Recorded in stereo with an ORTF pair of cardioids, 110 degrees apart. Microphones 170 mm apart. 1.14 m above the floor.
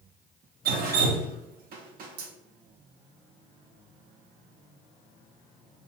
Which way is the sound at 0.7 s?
65° right.